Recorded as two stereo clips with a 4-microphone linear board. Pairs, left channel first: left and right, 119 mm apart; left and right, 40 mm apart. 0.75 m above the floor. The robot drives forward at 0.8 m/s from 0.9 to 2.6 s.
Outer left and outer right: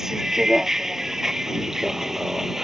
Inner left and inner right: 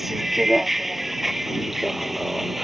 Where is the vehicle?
5° right (ahead or behind).